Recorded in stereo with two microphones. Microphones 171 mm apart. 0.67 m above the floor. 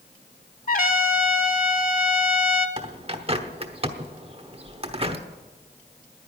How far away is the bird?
About 1.0 m.